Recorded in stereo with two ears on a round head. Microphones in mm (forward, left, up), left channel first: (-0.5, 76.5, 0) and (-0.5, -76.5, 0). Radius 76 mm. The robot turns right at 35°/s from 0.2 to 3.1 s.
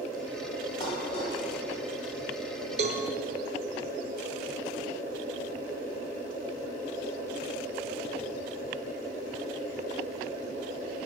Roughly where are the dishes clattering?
Left.